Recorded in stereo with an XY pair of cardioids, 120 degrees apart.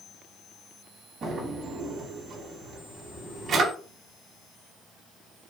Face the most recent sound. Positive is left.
turn(degrees=-50)